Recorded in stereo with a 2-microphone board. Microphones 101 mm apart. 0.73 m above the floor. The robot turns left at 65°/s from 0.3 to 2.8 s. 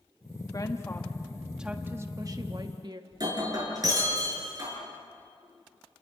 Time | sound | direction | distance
0.5 | a woman speaking | 60° left | 1.4 m
3.1 | breaking glass | 40° right (ahead or behind) | 6 m